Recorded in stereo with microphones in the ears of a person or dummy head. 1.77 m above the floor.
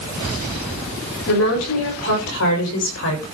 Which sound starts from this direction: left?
A woman speaking, at 1.3 s.